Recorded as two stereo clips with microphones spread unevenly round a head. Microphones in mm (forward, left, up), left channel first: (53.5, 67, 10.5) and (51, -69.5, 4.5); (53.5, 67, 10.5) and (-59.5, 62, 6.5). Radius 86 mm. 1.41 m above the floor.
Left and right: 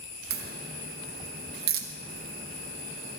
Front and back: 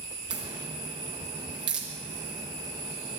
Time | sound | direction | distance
0.3 | a crack | 115° right | 1.3 m